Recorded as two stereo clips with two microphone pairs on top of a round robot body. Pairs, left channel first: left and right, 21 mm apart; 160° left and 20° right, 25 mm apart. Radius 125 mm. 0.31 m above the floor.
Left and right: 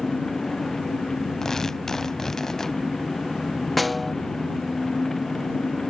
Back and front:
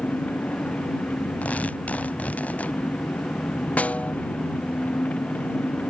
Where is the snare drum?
175° left.